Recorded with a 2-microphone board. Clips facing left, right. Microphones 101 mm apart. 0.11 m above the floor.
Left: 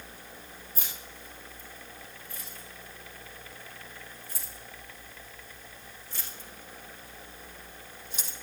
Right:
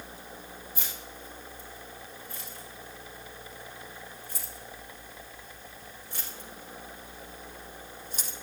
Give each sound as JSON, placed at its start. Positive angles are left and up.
{"t": 0.8, "sound": "keys jangling", "side_deg": -70, "distance_m": 9.5}